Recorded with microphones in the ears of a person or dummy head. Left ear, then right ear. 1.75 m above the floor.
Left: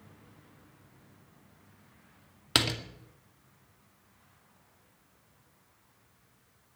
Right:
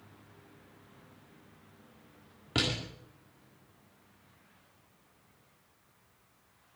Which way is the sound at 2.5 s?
70° left (ahead or behind).